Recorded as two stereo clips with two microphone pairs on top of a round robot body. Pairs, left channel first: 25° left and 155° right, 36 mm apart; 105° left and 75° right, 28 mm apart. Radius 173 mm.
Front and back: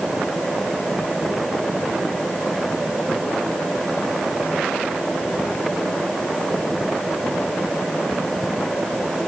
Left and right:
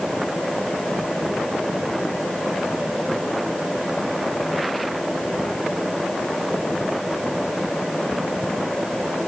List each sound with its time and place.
Only background noise.